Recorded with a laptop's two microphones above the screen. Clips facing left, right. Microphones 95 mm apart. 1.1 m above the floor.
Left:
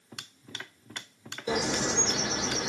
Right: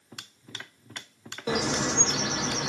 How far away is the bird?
About 1.1 m.